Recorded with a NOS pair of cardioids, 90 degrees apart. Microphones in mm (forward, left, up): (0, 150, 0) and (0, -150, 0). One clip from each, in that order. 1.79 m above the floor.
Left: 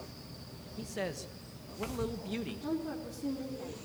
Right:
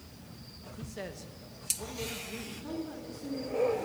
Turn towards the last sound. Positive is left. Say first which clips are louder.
# left 3 dB
turn(degrees=40)